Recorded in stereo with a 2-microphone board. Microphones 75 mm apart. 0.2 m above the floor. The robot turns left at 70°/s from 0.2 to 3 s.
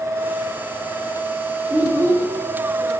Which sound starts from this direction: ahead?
A child speaking, at 1.7 s.